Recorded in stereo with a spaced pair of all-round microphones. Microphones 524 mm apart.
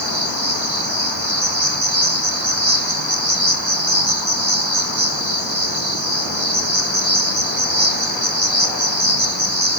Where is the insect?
55° right (ahead or behind), 3 m.